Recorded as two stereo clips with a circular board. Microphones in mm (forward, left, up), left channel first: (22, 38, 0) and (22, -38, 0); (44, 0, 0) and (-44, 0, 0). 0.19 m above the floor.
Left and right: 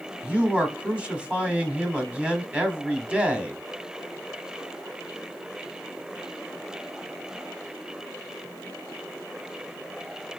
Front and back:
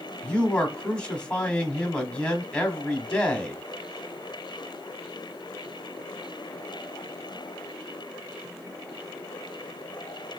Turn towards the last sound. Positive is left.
turn(degrees=-50)